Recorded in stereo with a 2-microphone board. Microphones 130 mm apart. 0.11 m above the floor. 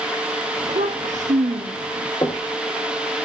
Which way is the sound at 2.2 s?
30° left (ahead or behind).